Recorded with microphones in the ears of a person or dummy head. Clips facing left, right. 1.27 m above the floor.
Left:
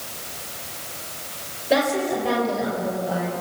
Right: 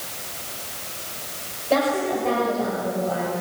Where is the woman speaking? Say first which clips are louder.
Even; 15° left (ahead or behind), 6 m.